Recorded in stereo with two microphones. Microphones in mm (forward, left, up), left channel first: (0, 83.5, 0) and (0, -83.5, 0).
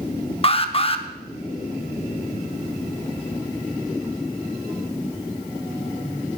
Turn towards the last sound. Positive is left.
turn(degrees=35)  # may be behind; listen again after turning